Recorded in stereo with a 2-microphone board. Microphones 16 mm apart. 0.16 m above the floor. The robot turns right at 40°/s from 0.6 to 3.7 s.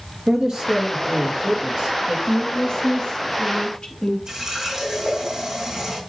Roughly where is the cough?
I don't hear a cough.